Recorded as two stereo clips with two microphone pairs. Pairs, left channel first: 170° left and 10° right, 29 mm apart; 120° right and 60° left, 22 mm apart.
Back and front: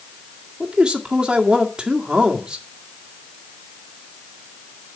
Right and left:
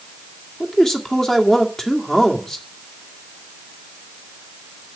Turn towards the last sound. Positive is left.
turn(degrees=-55)